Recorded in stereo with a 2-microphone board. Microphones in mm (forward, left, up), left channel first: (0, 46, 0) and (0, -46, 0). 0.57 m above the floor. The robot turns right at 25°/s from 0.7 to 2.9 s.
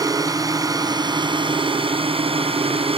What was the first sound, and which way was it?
A drone, 140° right.